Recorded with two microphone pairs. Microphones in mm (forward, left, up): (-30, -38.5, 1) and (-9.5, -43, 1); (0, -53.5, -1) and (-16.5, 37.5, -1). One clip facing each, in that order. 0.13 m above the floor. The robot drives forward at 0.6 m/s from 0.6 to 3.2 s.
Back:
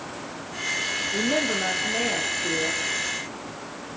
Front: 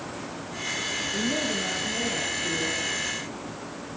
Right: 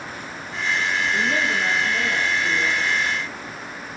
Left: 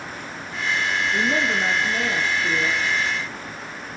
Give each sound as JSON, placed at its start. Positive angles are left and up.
{"t": 1.1, "sound": "a woman speaking", "azimuth_deg": 175, "distance_m": 7.0}